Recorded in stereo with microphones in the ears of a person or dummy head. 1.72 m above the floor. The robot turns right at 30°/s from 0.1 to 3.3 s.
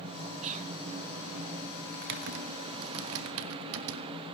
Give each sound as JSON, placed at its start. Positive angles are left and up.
{"t": 0.4, "sound": "whispering", "side_deg": -30, "distance_m": 0.5}
{"t": 1.9, "sound": "typing on a keyboard", "side_deg": -50, "distance_m": 1.1}